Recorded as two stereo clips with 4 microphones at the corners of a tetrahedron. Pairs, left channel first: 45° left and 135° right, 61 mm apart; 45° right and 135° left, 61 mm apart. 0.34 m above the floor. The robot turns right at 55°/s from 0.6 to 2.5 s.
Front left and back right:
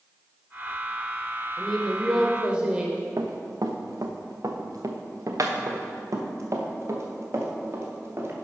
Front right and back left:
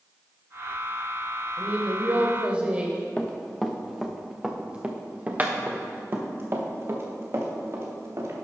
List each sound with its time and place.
1.6 s a woman speaking: 125° left, 1.1 m; by 3.1 s 175° left, 1.1 m
3.2 s running footsteps: 115° right, 1.3 m; by 8.5 s 175° left, 3 m